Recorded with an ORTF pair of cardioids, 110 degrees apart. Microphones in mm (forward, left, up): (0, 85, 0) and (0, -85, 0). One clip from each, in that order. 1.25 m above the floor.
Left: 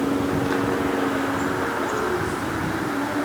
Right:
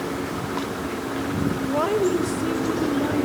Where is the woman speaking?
70° right, 1.1 m; by 3.2 s 25° right, 2.0 m.